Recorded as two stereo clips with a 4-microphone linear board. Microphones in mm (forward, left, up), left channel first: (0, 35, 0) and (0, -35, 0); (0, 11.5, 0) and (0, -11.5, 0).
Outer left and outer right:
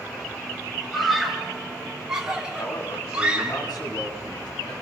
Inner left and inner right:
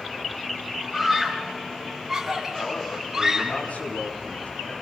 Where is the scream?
Centre (ahead or behind), 5.5 m; by 3.6 s 20° right (ahead or behind), 5.5 m.